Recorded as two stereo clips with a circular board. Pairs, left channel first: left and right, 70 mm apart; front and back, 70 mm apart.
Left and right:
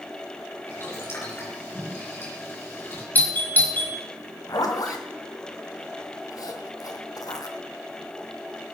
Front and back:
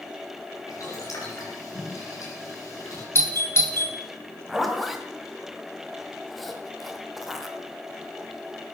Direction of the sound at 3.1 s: 35° left.